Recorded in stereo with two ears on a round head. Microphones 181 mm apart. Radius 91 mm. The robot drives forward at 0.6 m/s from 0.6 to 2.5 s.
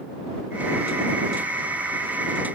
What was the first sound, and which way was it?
Only background noise.